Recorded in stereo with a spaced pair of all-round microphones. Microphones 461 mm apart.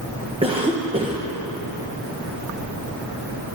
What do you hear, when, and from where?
0.4 s a cough: 10° right (ahead or behind), 0.9 m